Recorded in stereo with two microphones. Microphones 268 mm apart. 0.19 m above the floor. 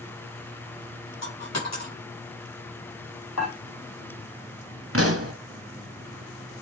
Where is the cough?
No cough in this recording.